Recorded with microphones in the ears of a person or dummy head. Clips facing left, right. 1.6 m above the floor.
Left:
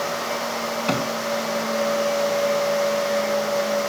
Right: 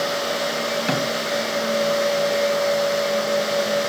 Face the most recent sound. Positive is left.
turn(degrees=-15)  # may be behind; listen again after turning